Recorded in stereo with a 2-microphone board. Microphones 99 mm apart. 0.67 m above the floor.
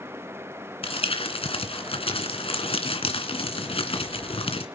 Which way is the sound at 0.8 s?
70° left (ahead or behind).